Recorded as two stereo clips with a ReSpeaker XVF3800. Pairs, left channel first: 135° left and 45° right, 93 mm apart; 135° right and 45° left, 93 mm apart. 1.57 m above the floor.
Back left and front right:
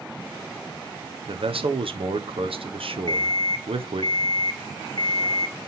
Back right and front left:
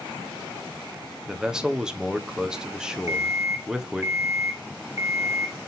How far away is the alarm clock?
About 1.5 m.